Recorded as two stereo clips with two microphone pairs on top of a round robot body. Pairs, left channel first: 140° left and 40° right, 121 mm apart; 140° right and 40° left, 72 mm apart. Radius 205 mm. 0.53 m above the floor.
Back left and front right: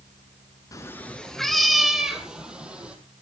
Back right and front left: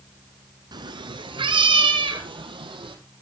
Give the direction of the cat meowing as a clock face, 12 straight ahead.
10 o'clock.